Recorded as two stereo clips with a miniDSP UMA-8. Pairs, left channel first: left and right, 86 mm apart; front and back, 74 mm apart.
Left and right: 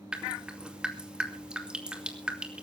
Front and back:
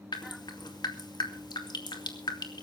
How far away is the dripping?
About 2 m.